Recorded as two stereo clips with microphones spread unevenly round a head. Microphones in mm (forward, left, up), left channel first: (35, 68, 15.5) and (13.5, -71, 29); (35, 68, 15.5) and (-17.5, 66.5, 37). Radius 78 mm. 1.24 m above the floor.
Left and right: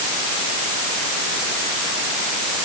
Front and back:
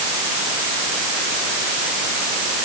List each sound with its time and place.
Only background noise.